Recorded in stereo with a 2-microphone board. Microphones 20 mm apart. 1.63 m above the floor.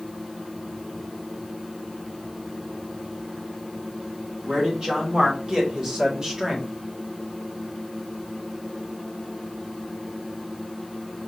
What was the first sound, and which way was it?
A man speaking, 45° right (ahead or behind).